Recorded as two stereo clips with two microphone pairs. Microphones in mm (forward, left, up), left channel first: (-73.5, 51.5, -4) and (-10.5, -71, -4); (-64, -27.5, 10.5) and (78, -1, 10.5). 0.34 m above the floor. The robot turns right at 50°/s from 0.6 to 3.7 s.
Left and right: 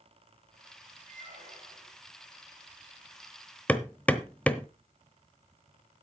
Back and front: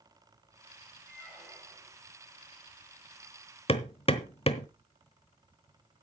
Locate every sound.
1.1 s a squeak: 85° right, 7 m; by 1.9 s 40° right, 7 m
3.7 s hammering: 170° right, 0.9 m